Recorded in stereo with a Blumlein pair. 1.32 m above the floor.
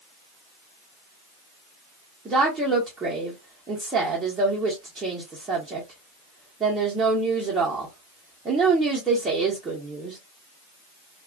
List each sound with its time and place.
2.2 s a woman speaking: 15° right, 0.8 m